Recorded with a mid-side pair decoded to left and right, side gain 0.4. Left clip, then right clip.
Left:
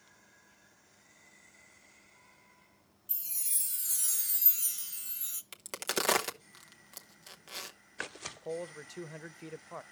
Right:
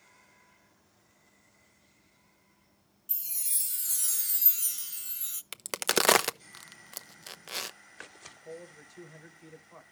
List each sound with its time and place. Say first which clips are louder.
3.1 s a chime: right 2 dB; 25° right, 1.1 m
5.5 s a crack: right 7 dB; 55° right, 0.7 m
8.3 s a man speaking: left 6 dB; 70° left, 0.8 m